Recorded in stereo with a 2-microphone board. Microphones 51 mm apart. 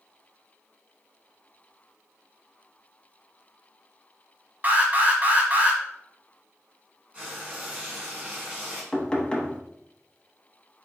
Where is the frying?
25° right (ahead or behind), 2.5 m.